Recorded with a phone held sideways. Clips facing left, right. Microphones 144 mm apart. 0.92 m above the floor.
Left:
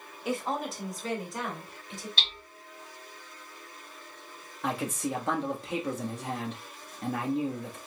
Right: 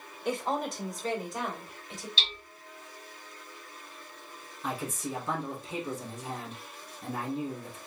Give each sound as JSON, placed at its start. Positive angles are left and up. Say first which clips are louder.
{"t": 0.2, "sound": "a woman speaking", "louder": "right 1 dB", "side_deg": 5, "distance_m": 1.4}
{"t": 2.2, "sound": "hammering", "louder": "even", "side_deg": 55, "distance_m": 2.0}
{"t": 4.6, "sound": "a man speaking", "louder": "left 4 dB", "side_deg": 75, "distance_m": 1.3}